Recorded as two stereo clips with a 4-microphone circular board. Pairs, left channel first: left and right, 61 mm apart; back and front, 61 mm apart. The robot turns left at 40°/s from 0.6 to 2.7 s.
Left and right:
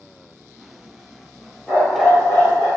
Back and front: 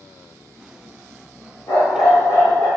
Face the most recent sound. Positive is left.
turn(degrees=125)